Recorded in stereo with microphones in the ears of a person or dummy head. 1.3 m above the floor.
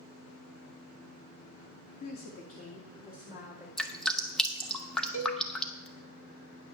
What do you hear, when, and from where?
2.0 s a woman speaking: 50° left (ahead or behind), 1.2 m; by 3.7 s 40° left (ahead or behind), 3.5 m
3.8 s dripping: 5° left (ahead or behind), 0.8 m
5.1 s a cowbell: 40° left (ahead or behind), 1.5 m